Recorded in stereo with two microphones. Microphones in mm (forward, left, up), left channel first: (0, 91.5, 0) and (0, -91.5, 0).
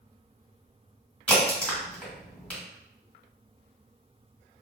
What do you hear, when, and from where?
1.3 s a crack: 10° left (ahead or behind), 1.5 m